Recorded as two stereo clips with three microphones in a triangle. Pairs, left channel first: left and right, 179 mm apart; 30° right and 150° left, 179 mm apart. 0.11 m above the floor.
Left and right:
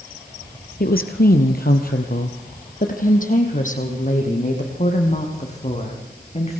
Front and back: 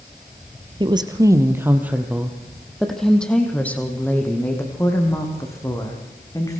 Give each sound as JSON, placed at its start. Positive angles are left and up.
{"t": 0.8, "sound": "a woman speaking", "azimuth_deg": 90, "distance_m": 2.0}